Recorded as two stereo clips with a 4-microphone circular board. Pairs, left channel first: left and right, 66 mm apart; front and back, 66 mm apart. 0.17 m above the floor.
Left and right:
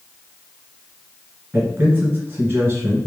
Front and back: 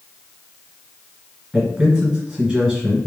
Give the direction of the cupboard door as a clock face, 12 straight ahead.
No cupboard door in this recording.